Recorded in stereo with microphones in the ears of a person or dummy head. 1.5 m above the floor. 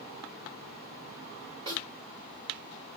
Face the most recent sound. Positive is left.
turn(degrees=-30)  # may be behind; listen again after turning